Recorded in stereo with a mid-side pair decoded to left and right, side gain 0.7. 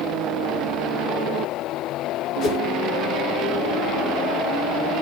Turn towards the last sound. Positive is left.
turn(degrees=50)